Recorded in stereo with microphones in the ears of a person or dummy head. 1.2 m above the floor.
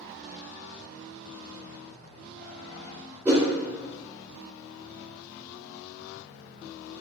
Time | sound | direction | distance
3.2 | a whoosh | 15° right (ahead or behind) | 1.2 m